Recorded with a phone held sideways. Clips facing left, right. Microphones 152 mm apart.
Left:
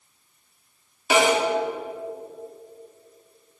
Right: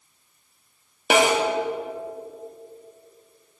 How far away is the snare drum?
About 1.6 m.